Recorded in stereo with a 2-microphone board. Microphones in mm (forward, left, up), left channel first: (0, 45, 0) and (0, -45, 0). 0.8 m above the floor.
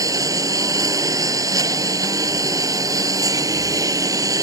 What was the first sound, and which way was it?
A lawn mower, 40° right (ahead or behind).